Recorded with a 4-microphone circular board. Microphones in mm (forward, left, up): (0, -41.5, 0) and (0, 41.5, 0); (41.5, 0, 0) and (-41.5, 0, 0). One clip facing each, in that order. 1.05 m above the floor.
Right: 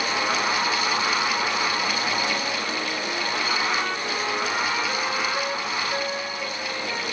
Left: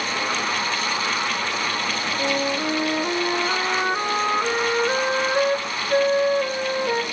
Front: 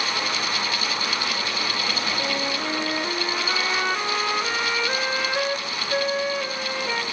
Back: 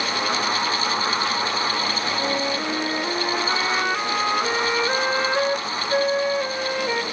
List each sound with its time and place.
2.2 s a flute: 105° left, 1.1 m